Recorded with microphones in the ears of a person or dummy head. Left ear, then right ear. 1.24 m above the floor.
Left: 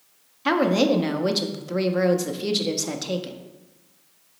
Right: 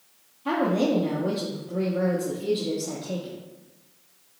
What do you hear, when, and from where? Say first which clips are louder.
0.5 s a woman speaking: left 4 dB; 60° left (ahead or behind), 0.6 m